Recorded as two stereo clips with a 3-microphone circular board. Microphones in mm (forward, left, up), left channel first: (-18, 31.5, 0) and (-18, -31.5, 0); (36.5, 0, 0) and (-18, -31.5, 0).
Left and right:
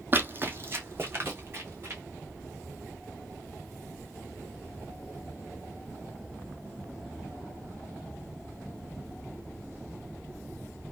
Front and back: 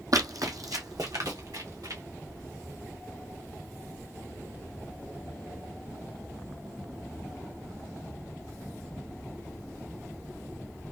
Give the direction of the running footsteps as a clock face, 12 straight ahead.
5 o'clock.